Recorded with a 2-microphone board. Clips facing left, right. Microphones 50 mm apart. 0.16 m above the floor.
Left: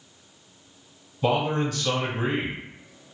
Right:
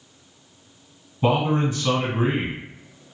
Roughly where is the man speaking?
Right.